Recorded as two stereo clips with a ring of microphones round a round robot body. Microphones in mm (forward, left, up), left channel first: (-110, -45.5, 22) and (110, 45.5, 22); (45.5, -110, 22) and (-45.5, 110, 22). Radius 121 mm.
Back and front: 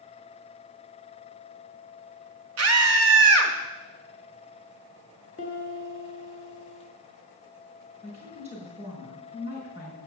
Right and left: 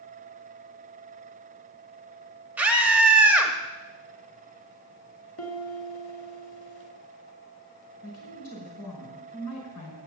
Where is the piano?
95° right, 1.9 m.